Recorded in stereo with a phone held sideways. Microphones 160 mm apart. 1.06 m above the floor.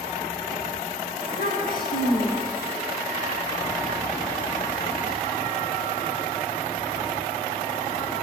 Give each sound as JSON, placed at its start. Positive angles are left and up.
{"t": 1.2, "sound": "a child speaking", "side_deg": 70, "distance_m": 8.0}